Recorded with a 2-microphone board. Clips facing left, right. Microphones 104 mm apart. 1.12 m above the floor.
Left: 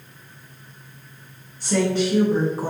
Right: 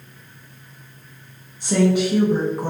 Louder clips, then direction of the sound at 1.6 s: Right 3 dB; 15° right (ahead or behind).